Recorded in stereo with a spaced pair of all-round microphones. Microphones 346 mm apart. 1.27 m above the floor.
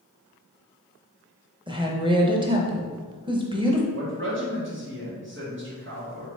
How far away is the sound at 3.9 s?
About 1.6 m.